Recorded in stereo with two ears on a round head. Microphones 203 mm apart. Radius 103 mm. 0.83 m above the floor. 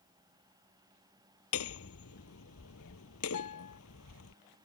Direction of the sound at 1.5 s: 65° left (ahead or behind).